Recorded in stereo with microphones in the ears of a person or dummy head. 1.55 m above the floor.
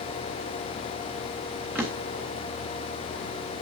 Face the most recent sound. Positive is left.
turn(degrees=-10)  # may be behind; listen again after turning